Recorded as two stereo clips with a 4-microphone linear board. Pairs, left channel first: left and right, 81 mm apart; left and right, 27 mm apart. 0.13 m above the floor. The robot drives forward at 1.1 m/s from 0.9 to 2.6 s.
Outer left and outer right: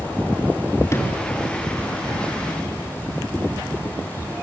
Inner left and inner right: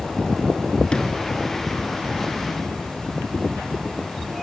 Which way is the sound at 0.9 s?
35° left (ahead or behind).